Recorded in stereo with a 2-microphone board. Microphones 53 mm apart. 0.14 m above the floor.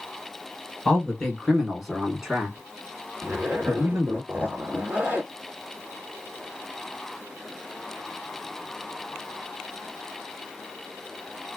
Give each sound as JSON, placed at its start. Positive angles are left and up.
{"t": 0.8, "sound": "a man speaking", "side_deg": 15, "distance_m": 1.6}
{"t": 3.2, "sound": "a zipper", "side_deg": -40, "distance_m": 2.0}